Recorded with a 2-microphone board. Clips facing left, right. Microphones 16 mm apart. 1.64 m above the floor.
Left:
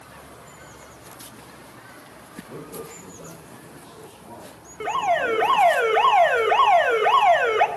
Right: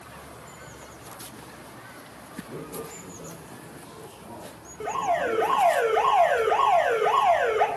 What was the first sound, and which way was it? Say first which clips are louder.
A man speaking: left 1 dB; 30° left (ahead or behind).